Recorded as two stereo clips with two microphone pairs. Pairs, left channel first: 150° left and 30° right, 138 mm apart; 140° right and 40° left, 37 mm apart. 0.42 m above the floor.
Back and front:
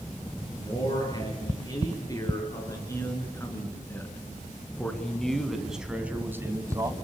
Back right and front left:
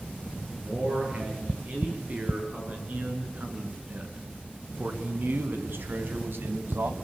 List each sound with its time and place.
0.6 s a man speaking: 95° left, 8 m; by 6.9 s 35° left, 3 m